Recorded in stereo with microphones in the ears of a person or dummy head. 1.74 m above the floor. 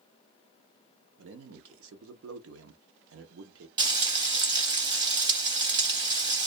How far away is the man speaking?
About 0.7 m.